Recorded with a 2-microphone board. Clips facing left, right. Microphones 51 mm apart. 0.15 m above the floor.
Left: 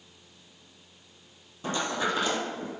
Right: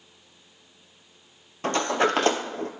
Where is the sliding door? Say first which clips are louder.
Right 6 dB; 75° right (ahead or behind), 0.7 m.